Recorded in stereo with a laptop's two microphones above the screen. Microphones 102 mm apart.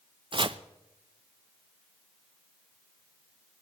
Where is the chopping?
50° right (ahead or behind), 0.6 m.